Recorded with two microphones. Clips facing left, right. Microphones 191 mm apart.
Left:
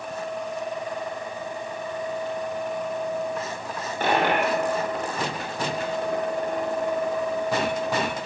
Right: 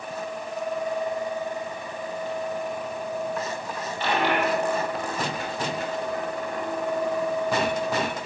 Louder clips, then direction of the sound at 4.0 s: Left 2 dB; 50° left (ahead or behind).